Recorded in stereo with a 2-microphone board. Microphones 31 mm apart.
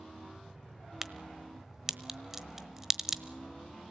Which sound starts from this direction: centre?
A crack, at 1.0 s.